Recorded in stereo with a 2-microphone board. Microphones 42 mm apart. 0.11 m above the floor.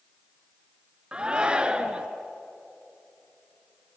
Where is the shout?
20° right (ahead or behind), 1.2 m.